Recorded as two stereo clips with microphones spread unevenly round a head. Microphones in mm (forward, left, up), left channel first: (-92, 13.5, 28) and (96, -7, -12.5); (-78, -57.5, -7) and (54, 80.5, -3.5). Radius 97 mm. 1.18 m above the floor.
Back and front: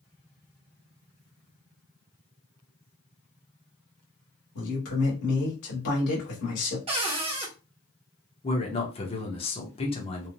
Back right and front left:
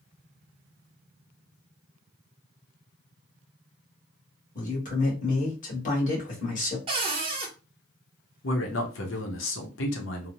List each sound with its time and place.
4.5 s a man speaking: straight behind, 1.6 m
6.9 s a cupboard door: 50° left, 0.8 m
8.4 s a man speaking: 120° right, 0.8 m